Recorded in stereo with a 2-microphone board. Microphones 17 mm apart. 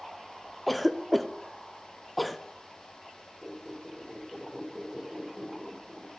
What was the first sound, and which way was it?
A cough, 5° left (ahead or behind).